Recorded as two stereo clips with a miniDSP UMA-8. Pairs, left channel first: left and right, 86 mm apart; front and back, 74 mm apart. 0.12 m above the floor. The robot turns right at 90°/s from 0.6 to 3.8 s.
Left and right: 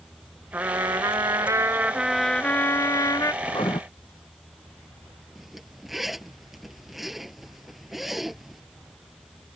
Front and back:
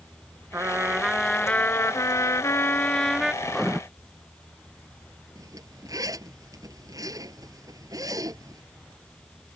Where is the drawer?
I don't hear a drawer.